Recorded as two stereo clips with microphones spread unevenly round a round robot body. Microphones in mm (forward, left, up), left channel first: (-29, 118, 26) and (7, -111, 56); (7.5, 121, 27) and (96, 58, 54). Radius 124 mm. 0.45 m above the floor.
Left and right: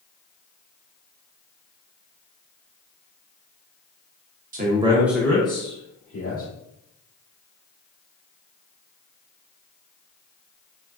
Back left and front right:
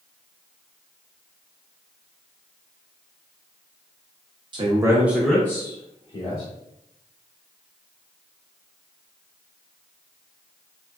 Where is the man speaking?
55° right, 0.8 m; by 6.5 s 130° left, 1.4 m.